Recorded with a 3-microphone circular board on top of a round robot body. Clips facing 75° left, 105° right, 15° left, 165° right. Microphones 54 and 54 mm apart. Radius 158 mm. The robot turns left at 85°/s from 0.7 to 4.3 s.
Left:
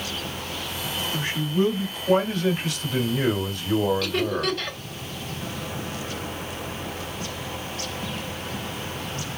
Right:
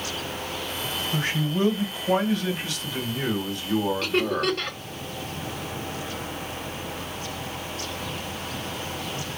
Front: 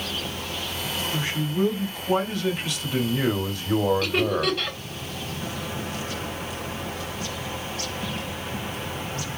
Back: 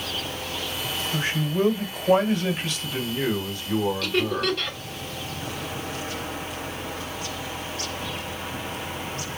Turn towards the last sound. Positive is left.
turn(degrees=-65)